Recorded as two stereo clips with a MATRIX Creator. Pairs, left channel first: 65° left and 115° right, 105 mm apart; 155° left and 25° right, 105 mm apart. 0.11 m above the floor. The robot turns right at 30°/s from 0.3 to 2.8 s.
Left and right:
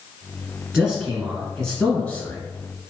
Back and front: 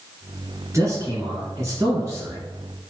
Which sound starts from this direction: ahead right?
A man speaking, at 0.7 s.